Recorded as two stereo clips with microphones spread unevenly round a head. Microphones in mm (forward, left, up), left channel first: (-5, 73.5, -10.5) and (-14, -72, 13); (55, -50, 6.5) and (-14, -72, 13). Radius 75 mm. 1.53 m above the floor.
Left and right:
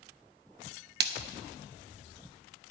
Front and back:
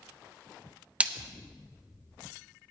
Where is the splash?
90° right, 0.6 m.